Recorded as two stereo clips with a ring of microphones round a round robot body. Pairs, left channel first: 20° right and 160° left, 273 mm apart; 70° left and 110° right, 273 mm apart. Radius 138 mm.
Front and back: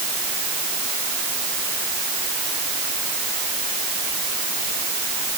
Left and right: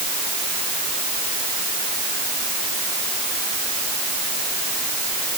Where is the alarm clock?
I don't hear an alarm clock.